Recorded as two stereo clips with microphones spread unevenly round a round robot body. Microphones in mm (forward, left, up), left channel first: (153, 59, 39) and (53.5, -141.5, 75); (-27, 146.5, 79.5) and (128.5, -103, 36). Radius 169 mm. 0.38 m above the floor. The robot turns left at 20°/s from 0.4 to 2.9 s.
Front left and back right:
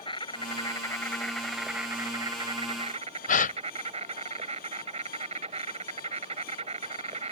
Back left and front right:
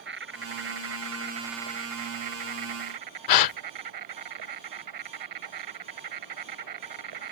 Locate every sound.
0.0 s an insect: 5° right; by 7.3 s 55° right
3.3 s a gasp: 115° left